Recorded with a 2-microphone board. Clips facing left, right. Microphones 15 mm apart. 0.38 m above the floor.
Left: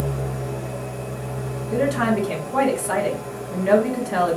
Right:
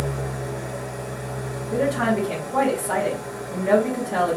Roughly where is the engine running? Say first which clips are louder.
Left 1 dB; right.